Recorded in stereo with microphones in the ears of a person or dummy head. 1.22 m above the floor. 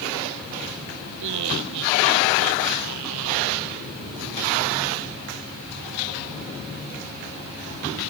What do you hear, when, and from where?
1.2 s laughter: 70° right (ahead or behind)